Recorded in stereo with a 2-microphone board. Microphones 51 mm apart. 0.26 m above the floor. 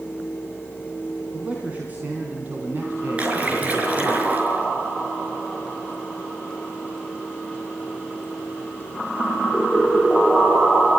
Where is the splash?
30° right (ahead or behind), 5 m.